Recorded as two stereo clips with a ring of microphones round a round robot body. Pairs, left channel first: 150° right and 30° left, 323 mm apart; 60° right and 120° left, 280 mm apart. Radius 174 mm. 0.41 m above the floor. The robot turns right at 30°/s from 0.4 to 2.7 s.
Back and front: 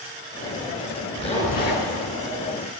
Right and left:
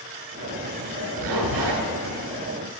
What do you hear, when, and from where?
1.2 s a zipper: 135° left, 2 m; by 1.8 s 155° left, 2 m